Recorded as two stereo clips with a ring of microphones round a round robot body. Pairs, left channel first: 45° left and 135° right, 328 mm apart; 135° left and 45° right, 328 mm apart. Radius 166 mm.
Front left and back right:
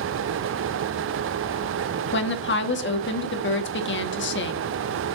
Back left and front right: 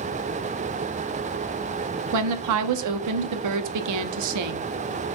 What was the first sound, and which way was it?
A woman speaking, 10° right.